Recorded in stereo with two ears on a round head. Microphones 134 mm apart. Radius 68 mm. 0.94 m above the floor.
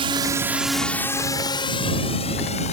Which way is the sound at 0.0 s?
40° right (ahead or behind).